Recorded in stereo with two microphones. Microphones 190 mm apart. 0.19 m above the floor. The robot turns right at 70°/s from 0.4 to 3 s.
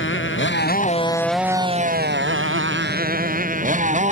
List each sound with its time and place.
0.0 s a motorcycle: 75° left (ahead or behind); by 4.1 s 35° right (ahead or behind)